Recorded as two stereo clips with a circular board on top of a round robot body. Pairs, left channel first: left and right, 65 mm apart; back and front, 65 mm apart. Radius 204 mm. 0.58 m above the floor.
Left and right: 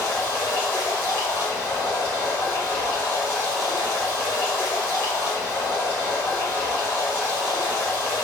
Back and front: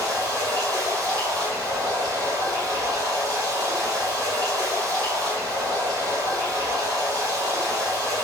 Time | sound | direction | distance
0.0 | running water | 30° left | 1.3 m